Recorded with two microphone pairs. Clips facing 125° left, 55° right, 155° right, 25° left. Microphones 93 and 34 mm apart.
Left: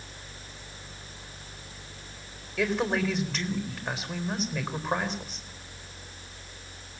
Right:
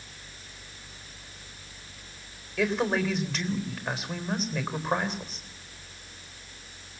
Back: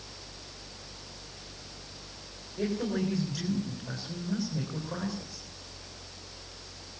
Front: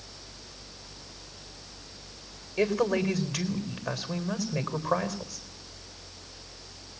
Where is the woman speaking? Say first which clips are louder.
Right 1 dB, front 5 dB; 30° left, 4 m.